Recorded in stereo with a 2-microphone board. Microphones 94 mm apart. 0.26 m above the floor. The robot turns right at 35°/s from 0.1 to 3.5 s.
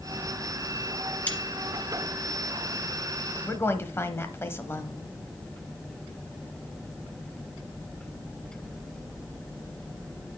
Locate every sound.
1.3 s cutlery clinking: 15° left (ahead or behind), 1.7 m; by 1.4 s 20° left (ahead or behind), 1.7 m
3.4 s a woman speaking: 25° left (ahead or behind), 1.1 m